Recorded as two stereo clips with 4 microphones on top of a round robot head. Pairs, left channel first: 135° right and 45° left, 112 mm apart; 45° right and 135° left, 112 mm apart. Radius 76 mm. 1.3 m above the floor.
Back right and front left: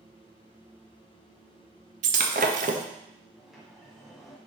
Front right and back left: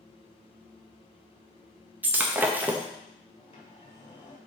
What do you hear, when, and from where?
2.0 s breaking glass: 60° left, 0.7 m
3.4 s a sliding door: 40° right, 1.3 m